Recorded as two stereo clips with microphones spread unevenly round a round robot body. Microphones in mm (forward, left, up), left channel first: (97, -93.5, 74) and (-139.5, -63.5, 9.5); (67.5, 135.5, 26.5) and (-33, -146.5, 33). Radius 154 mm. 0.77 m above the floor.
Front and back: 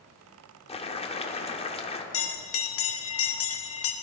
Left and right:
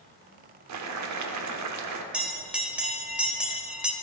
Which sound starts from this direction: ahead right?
A bell, at 2.1 s.